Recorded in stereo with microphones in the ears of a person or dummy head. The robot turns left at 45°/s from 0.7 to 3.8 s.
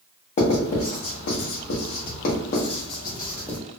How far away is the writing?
About 1.0 m.